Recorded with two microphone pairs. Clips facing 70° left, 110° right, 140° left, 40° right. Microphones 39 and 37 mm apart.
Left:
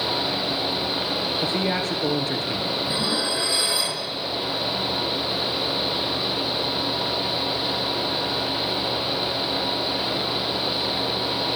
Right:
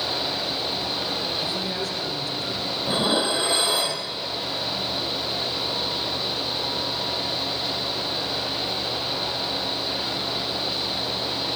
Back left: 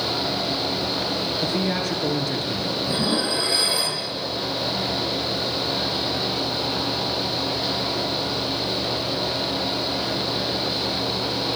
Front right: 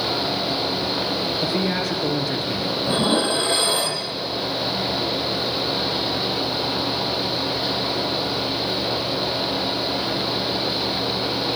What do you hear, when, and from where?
1.4 s a man speaking: 40° left, 1.9 m
2.9 s dishes clattering: 70° right, 2.5 m